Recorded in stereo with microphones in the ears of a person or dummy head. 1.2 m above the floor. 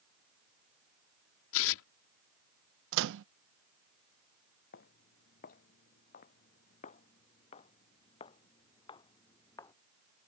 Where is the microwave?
75° right (ahead or behind).